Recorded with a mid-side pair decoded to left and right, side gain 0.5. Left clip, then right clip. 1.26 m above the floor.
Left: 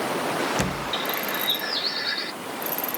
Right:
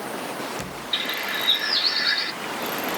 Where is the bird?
25° right.